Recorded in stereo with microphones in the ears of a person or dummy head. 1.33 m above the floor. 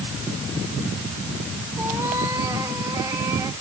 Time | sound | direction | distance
1.8 | a cat meowing | 10° right (ahead or behind) | ?